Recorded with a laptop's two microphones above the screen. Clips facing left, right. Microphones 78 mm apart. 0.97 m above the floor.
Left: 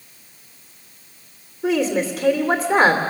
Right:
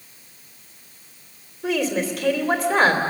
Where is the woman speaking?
30° left (ahead or behind), 2.5 m.